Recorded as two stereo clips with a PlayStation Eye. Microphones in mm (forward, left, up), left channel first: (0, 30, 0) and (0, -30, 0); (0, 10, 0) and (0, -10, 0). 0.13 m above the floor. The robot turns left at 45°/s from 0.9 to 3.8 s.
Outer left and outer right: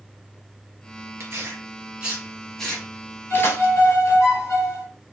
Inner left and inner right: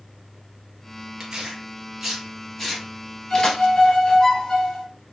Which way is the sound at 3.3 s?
50° left (ahead or behind).